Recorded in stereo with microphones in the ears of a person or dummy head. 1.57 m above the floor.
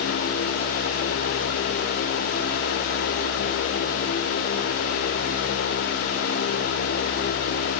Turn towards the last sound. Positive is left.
No sound to turn to.